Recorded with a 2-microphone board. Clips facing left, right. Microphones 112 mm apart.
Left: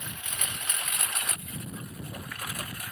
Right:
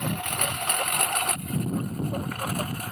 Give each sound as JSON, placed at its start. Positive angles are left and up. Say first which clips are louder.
{"t": 0.0, "sound": "a lawn mower", "louder": "right 11 dB", "side_deg": -60}